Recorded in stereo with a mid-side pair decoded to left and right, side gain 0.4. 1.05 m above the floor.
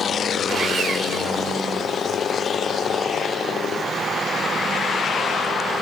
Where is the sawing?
55° right, 1.3 m.